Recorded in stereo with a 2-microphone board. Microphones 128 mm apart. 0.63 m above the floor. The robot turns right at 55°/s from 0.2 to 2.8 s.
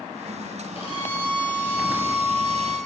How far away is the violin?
About 2.5 m.